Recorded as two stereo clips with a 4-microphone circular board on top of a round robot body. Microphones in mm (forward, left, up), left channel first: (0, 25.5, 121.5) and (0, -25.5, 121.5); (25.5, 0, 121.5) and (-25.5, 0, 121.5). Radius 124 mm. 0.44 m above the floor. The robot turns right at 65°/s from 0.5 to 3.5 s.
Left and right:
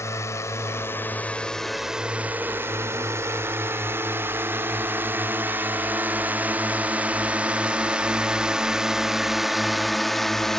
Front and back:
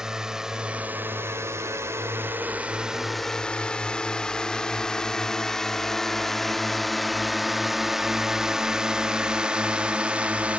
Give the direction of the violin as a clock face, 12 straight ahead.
No violin in this recording.